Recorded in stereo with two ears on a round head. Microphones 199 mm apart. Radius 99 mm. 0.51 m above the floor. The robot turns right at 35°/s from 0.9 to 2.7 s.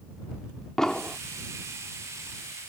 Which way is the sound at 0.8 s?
Centre (ahead or behind).